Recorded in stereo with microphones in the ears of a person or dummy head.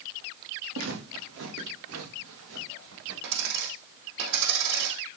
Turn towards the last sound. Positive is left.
turn(degrees=-65)  # may be behind; listen again after turning